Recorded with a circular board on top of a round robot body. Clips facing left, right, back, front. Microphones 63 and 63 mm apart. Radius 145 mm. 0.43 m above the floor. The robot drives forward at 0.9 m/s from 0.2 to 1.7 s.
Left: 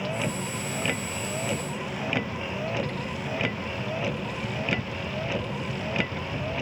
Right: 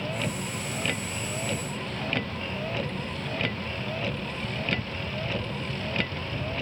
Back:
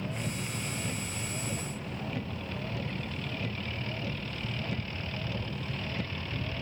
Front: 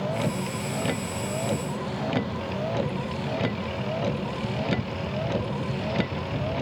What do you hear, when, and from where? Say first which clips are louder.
0.0 s a vehicle: left 2 dB, front 9 dB; 10° left